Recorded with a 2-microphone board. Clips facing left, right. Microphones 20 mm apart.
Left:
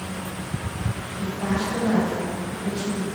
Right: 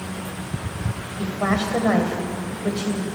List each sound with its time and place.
1.2 s a woman speaking: 75° right (ahead or behind), 3 m